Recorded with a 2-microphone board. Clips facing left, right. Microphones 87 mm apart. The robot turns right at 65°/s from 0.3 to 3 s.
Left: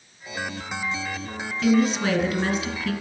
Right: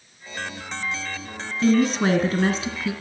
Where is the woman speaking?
115° right, 1.8 m; by 2.9 s 25° right, 1.8 m.